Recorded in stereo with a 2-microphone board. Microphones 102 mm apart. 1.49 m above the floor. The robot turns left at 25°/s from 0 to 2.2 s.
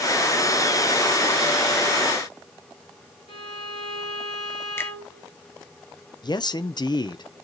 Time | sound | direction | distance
3.3 | a violin | 70° left (ahead or behind) | 3 m
4.8 | a finger snap | 25° left (ahead or behind) | 1.0 m
6.2 | a man speaking | 45° left (ahead or behind) | 0.7 m